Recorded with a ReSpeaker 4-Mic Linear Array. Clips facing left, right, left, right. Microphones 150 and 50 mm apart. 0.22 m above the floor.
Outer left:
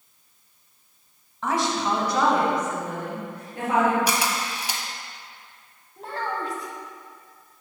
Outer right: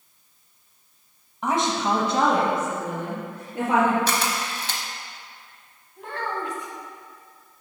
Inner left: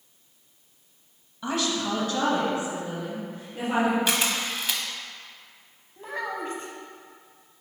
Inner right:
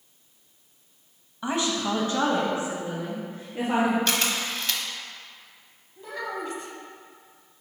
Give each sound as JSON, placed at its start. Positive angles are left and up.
{"t": 1.4, "sound": "a woman speaking", "side_deg": -20, "distance_m": 1.0}
{"t": 4.1, "sound": "a camera shutter", "side_deg": 15, "distance_m": 0.7}
{"t": 6.0, "sound": "a child speaking", "side_deg": 35, "distance_m": 1.1}